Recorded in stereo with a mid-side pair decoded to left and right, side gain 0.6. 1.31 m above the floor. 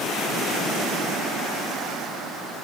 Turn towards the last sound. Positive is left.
No sound to turn to.